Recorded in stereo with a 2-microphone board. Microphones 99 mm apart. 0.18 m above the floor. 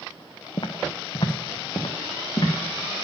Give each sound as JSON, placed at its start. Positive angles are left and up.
{"t": 0.6, "sound": "footsteps", "side_deg": 55, "distance_m": 0.7}